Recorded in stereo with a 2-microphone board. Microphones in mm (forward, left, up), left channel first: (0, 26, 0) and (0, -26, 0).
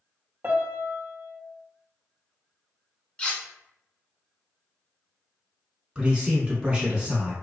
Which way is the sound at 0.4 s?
40° right (ahead or behind).